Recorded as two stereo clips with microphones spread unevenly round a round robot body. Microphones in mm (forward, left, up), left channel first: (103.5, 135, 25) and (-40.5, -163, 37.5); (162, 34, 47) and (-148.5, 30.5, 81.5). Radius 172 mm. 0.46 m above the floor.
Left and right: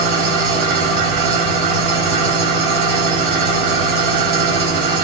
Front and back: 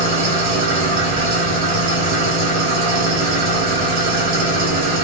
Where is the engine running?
115° right, 3 m.